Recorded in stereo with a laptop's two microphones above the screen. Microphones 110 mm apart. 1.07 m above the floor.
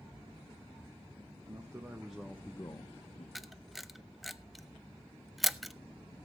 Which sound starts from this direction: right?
A man speaking, at 1.5 s.